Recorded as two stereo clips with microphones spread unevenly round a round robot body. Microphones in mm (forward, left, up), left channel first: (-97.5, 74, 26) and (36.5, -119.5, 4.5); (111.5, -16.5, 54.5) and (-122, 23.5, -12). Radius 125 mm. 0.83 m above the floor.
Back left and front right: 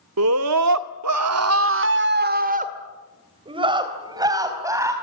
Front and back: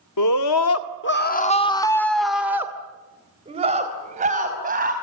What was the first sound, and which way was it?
A scream, 25° right.